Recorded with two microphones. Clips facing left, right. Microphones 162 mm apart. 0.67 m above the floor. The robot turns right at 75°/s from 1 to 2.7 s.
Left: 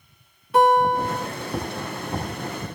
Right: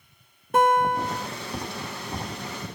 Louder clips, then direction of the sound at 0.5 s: Left 3 dB; 45° right (ahead or behind).